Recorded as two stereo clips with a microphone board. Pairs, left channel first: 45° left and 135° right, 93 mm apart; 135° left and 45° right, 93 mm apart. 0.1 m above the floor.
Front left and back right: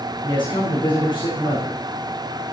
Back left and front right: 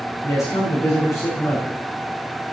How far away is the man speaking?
About 6 m.